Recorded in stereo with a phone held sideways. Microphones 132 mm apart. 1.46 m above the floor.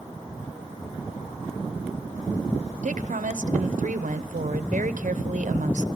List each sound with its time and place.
2.8 s a woman speaking: 75° right (ahead or behind), 0.8 m